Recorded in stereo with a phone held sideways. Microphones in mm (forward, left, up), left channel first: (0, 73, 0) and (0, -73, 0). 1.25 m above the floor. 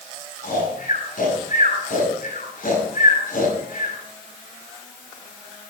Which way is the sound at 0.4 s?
70° left (ahead or behind).